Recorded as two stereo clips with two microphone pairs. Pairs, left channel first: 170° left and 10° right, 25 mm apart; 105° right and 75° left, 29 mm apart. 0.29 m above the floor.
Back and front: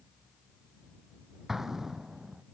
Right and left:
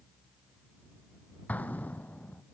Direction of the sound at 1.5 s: 85° right.